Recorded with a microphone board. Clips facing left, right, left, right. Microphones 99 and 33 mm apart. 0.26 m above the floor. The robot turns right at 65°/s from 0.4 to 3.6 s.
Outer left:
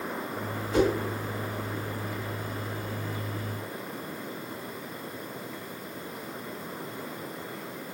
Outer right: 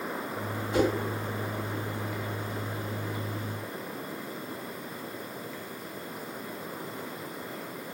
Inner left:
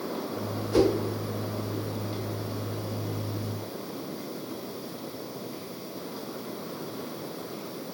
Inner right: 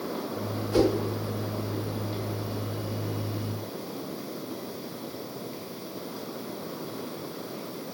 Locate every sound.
0.7 s a whoosh: 15° right (ahead or behind), 1.3 m